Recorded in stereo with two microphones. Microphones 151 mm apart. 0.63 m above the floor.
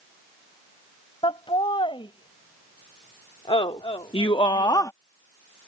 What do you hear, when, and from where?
1.2 s laughter: 35° left (ahead or behind); by 4.9 s 20° left (ahead or behind)